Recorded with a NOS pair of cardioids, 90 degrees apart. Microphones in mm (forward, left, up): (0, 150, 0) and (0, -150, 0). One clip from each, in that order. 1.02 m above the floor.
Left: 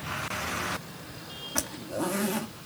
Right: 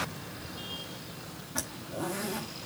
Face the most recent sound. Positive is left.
turn(degrees=35)